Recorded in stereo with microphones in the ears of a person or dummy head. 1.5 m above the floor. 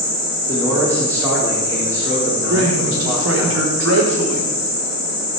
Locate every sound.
0.5 s a man speaking: 15° right (ahead or behind), 3.5 m
2.5 s a man speaking: 80° right, 3.5 m